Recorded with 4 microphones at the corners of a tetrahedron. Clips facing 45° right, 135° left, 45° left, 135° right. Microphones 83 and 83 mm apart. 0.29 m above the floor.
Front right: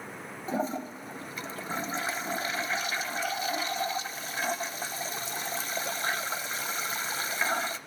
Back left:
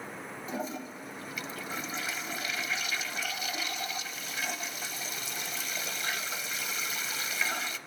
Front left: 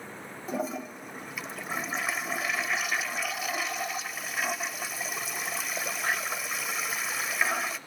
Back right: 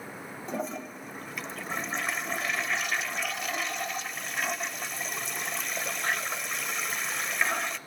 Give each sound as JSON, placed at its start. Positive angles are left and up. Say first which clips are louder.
{"t": 0.5, "sound": "a toilet flushing", "louder": "front right 6 dB, front left 2 dB", "azimuth_deg": -40, "distance_m": 0.6}